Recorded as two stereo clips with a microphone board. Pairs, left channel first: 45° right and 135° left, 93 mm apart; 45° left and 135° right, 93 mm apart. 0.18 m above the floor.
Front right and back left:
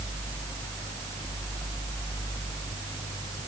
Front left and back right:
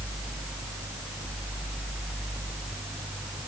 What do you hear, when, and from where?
Only background noise.